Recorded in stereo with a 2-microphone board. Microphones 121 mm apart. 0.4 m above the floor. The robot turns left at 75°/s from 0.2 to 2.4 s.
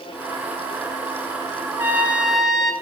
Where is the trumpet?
20° right (ahead or behind), 1.4 m; by 2.7 s centre (ahead or behind), 1.4 m.